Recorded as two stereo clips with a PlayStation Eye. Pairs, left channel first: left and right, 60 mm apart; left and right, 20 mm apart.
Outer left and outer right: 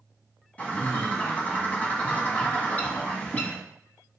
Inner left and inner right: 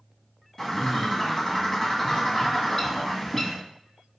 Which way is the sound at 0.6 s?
25° left (ahead or behind).